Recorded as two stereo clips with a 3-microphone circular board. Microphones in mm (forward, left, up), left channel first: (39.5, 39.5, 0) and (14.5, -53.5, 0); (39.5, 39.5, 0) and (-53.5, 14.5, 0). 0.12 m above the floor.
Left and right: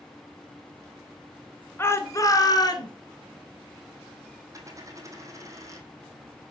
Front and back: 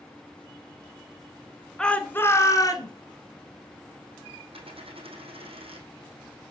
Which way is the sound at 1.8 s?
90° left.